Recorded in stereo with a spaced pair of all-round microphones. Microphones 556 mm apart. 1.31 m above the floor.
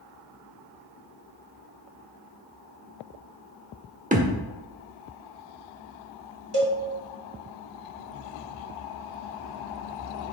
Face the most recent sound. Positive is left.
turn(degrees=-65)  # may be behind; listen again after turning